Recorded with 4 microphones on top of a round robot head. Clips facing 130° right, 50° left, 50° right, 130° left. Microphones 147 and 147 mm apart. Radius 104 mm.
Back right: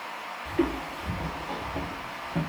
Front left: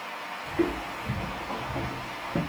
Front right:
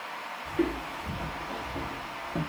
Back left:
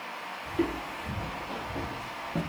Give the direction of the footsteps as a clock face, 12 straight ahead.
5 o'clock.